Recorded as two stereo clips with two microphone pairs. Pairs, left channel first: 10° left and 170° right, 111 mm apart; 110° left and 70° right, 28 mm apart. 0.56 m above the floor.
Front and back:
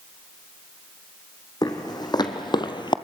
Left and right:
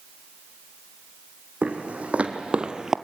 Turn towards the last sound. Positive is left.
turn(degrees=-5)